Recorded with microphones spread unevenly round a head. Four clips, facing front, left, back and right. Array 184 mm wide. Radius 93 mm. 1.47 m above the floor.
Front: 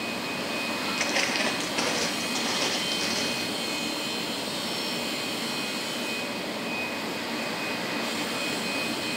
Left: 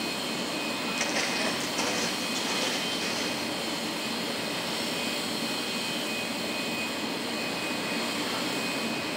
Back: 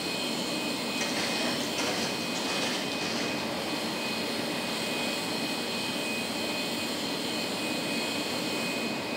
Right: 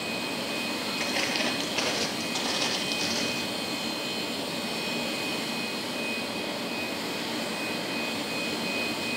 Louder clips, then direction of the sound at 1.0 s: Right 1 dB, front 4 dB; 10° left.